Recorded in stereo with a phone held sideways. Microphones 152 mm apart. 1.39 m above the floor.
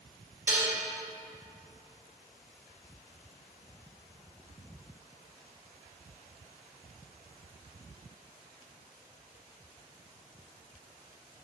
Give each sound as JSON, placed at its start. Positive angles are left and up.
{"t": 0.5, "sound": "dishes clattering", "side_deg": -15, "distance_m": 2.0}